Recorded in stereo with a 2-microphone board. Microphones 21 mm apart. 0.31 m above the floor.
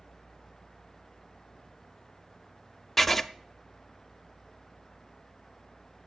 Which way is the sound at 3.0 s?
15° left (ahead or behind).